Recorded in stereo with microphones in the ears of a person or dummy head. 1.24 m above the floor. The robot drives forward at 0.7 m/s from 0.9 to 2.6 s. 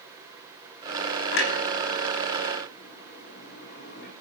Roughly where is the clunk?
Left.